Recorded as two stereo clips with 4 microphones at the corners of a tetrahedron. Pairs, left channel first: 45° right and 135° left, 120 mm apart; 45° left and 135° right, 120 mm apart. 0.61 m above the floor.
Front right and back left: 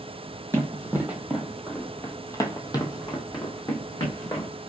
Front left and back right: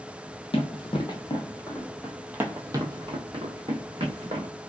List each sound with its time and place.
0.5 s running footsteps: 65° left, 1.0 m; by 4.5 s 100° right, 1.6 m